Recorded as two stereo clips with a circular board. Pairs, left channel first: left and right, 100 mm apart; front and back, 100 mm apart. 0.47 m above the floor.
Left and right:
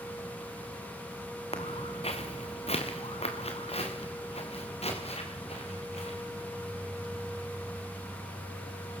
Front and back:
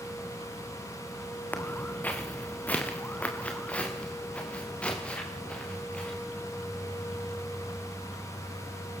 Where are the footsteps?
75° left, 2.5 m; by 7.3 s 80° left, 7.5 m.